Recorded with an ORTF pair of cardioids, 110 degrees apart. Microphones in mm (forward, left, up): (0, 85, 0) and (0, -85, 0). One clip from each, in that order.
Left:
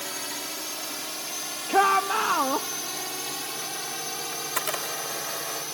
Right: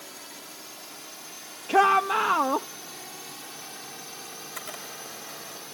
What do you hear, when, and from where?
0.0 s a drone: 65° left; by 5.7 s 55° left
1.7 s a shout: straight ahead
4.3 s a camera shutter: 65° left